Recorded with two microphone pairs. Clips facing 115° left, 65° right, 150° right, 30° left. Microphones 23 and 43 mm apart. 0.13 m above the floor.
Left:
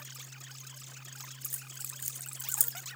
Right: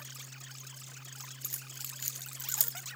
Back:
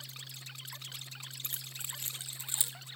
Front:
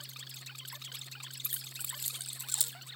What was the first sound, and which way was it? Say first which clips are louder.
Keys jangling: right 2 dB, back 1 dB; 115° right.